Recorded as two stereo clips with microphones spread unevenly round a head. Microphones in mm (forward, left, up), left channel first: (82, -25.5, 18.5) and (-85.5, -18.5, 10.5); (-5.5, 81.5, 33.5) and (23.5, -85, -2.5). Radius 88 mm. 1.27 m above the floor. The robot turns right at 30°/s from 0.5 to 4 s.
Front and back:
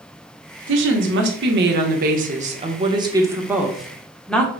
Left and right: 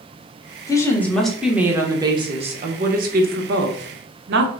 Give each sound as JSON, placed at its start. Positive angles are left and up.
{"t": 0.7, "sound": "a woman speaking", "azimuth_deg": 170, "distance_m": 1.0}